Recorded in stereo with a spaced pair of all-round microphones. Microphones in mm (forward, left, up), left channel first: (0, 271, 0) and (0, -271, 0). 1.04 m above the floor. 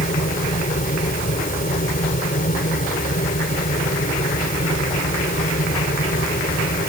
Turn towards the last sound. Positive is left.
turn(degrees=15)  # may be behind; listen again after turning